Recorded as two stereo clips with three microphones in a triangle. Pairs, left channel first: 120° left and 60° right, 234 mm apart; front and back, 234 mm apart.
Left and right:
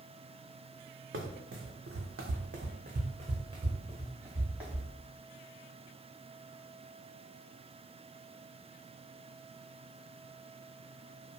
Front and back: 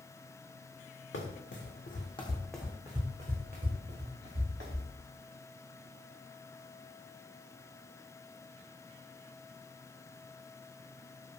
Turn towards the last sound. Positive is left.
turn(degrees=-145)